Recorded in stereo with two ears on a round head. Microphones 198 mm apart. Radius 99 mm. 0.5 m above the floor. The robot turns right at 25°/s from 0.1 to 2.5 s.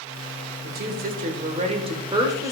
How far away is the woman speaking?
About 1.9 m.